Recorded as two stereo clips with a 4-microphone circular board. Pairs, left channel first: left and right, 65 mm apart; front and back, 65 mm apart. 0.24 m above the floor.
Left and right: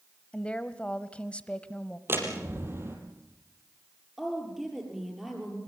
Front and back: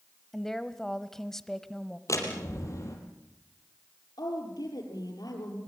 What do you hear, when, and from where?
0.3 s a woman speaking: 70° left, 0.9 m
2.1 s a door slam: 40° right, 4.5 m
4.2 s a woman speaking: 5° right, 6.5 m